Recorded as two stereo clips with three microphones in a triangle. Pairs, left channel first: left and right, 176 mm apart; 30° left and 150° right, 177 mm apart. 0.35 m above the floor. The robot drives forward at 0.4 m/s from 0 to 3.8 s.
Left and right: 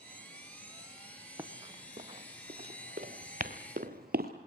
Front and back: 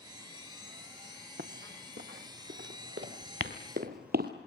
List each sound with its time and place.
1.4 s running footsteps: 165° right, 2.0 m; by 4.3 s 125° right, 3.5 m